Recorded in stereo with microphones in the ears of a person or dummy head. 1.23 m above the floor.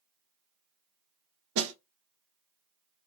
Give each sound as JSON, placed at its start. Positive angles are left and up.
{"t": 1.6, "sound": "a snare drum", "side_deg": -75, "distance_m": 0.6}